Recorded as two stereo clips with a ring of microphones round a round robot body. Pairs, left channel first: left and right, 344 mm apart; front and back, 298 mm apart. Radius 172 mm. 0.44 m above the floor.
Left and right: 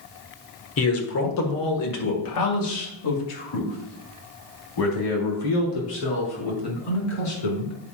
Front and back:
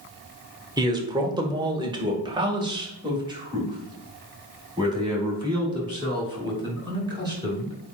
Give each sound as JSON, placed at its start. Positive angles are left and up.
{"t": 0.8, "sound": "a man speaking", "azimuth_deg": 110, "distance_m": 1.5}